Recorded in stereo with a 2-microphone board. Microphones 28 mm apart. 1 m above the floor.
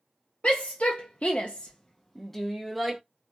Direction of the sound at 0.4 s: 50° left (ahead or behind).